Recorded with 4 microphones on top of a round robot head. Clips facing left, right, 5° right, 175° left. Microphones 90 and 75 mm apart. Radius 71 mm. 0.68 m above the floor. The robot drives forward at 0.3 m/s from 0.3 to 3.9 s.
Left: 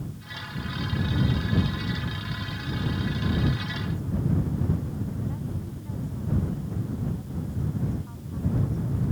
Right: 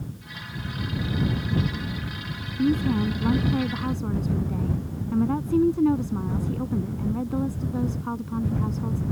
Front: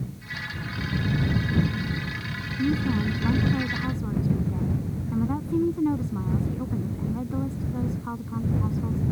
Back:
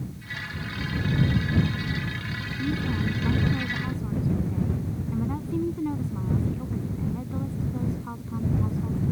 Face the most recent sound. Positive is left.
turn(degrees=-75)